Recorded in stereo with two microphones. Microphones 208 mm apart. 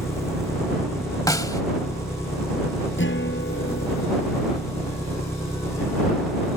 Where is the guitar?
65° left (ahead or behind).